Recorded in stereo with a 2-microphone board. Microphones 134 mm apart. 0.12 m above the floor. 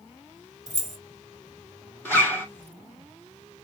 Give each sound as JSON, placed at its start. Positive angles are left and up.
{"t": 0.7, "sound": "keys jangling", "side_deg": 0, "distance_m": 1.6}
{"t": 2.0, "sound": "a zipper", "side_deg": 15, "distance_m": 2.0}